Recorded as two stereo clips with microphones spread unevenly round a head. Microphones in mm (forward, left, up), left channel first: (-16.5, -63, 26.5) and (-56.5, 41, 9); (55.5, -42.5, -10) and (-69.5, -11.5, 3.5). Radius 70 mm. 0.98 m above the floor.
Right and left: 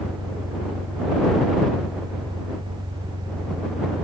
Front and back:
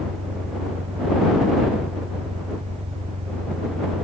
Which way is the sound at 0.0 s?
160° left.